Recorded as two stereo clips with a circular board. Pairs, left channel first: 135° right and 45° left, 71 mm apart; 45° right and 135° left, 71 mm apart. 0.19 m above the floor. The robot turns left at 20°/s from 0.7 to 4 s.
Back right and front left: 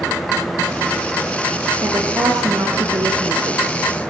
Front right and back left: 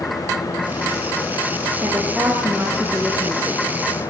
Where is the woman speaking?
85° left, 4.5 m; by 3.6 s 50° left, 4.5 m.